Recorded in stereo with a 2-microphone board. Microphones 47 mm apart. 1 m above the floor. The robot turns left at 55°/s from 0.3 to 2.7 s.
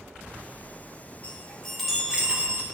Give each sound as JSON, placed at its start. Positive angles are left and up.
{"t": 1.2, "sound": "a chime", "azimuth_deg": 30, "distance_m": 8.5}